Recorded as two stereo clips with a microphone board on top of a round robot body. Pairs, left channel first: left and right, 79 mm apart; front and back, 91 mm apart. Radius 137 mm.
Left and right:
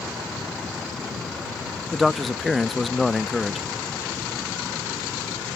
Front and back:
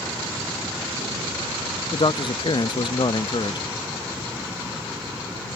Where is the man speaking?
Straight ahead.